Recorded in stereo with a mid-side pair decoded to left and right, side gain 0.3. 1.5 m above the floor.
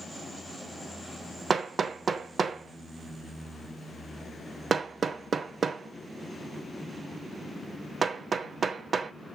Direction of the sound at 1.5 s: 60° right.